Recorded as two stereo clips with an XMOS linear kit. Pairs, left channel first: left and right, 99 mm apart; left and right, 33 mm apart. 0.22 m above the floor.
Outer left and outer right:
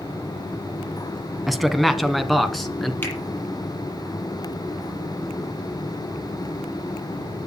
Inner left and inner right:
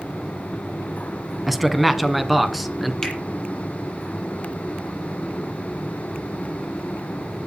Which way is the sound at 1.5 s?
Centre (ahead or behind).